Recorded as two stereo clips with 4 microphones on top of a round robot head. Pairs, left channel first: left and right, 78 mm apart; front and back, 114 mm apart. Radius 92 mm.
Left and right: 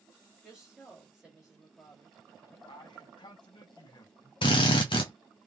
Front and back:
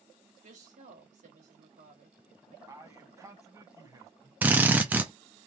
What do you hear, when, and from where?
0.4 s a woman speaking: 170° right, 1.8 m
2.7 s a man speaking: 120° left, 1.4 m
4.4 s a drill: 110° left, 0.5 m